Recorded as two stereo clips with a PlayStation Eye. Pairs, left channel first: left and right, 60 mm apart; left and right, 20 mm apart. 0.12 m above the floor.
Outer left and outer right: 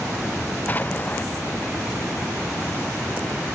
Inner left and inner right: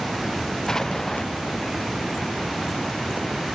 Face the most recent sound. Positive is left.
turn(degrees=30)  # may be behind; listen again after turning